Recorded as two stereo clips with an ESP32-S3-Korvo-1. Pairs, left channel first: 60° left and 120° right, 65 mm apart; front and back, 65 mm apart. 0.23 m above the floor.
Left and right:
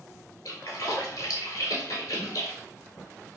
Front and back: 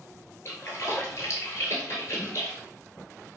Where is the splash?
45° left, 0.8 m.